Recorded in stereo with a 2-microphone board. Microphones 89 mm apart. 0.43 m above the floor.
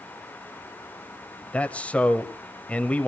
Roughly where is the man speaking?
Centre.